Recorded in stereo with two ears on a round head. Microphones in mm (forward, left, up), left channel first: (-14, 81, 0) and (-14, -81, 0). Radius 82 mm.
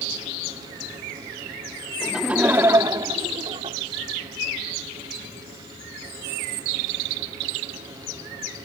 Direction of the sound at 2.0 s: Centre (ahead or behind).